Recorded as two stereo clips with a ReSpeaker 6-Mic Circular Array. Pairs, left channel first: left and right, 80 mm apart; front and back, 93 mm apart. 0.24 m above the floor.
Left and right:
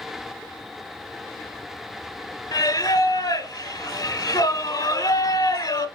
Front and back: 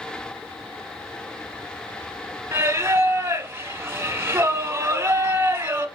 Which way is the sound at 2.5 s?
115° left.